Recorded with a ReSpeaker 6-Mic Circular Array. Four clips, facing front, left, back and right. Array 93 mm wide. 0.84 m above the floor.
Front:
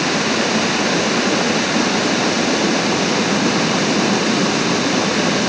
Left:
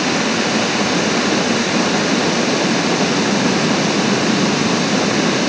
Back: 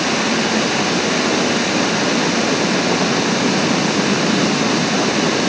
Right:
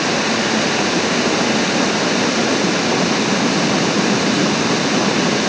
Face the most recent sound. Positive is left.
No sound to turn to.